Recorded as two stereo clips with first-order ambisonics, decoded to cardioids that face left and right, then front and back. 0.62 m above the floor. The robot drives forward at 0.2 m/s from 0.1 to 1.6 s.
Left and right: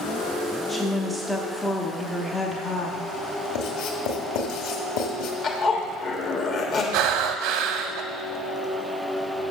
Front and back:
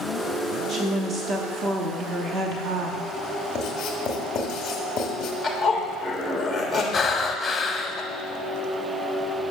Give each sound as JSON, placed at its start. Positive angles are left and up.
{"t": 0.7, "sound": "a woman speaking", "azimuth_deg": 165, "distance_m": 0.8}
{"t": 3.5, "sound": "writing", "azimuth_deg": 60, "distance_m": 1.4}
{"t": 5.4, "sound": "a zipper", "azimuth_deg": 95, "distance_m": 1.2}
{"t": 6.9, "sound": "breathing", "azimuth_deg": -75, "distance_m": 0.6}